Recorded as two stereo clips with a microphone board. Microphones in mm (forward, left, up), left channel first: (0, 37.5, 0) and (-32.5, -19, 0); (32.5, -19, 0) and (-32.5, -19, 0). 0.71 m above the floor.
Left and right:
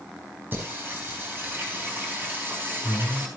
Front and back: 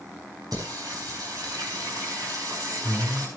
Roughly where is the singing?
Behind.